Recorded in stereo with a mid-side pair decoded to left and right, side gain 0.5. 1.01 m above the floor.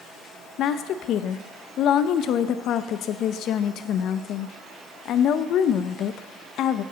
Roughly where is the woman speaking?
Ahead left.